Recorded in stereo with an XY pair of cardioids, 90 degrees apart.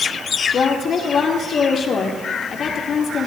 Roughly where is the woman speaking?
Ahead left.